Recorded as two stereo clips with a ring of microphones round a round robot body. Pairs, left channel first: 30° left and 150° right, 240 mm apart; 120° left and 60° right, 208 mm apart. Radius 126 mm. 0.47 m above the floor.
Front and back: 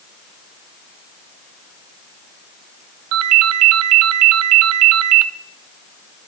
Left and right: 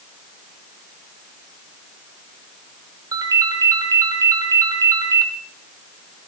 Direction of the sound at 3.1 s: 135° right.